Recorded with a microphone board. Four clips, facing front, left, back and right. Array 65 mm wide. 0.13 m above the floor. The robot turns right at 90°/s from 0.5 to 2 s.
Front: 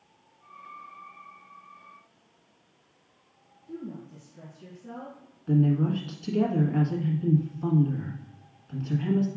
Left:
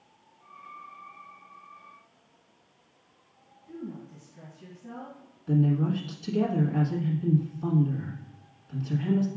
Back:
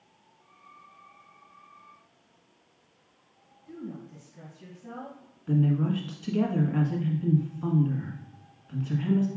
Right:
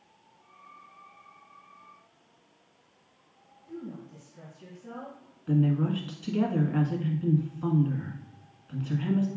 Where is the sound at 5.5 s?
110° right, 1.4 m.